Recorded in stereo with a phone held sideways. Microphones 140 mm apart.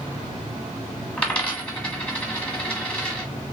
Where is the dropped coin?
10° left (ahead or behind), 1.2 m.